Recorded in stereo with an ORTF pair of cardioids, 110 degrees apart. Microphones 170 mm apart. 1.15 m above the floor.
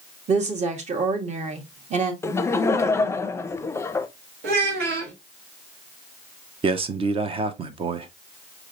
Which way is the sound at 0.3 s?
40° right.